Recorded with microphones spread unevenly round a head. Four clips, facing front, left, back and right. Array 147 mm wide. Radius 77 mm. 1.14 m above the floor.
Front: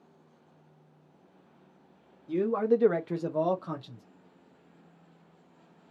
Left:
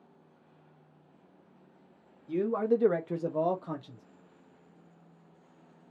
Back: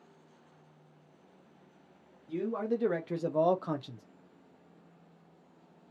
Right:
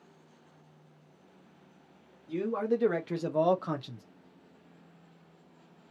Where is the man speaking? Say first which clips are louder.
Left 2 dB, front 7 dB; 15° left, 0.9 m; by 4.0 s 130° right, 0.7 m.